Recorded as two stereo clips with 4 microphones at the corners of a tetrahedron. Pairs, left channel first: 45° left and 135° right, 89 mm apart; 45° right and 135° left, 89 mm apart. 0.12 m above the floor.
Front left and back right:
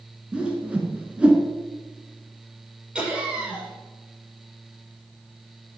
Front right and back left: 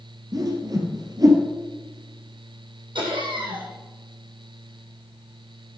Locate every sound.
0.3 s a whoosh: 150° left, 1.8 m
3.0 s laughter: 145° left, 3.5 m